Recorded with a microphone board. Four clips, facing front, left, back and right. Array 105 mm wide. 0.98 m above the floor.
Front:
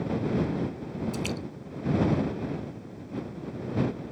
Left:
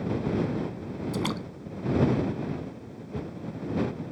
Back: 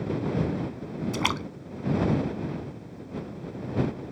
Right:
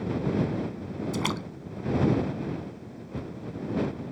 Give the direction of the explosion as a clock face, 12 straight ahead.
No explosion in this recording.